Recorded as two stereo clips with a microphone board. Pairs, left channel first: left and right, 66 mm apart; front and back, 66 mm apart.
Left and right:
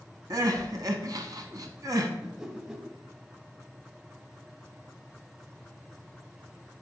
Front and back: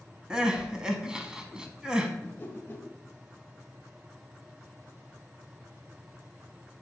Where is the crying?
100° right, 0.8 m.